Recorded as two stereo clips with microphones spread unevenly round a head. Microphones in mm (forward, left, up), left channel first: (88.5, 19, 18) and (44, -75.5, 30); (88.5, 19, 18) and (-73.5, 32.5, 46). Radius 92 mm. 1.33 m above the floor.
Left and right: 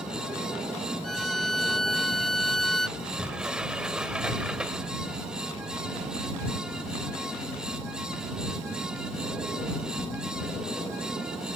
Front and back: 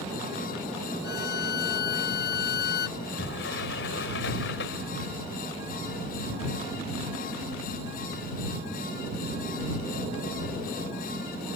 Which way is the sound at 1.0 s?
20° right.